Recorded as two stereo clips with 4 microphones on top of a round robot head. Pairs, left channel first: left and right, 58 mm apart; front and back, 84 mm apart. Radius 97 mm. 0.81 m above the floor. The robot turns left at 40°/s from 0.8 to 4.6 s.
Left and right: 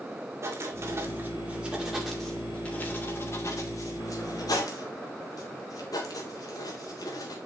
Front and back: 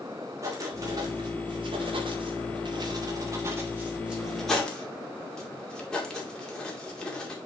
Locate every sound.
0.4 s writing: 130° right, 2.5 m; by 7.4 s 80° left, 2.5 m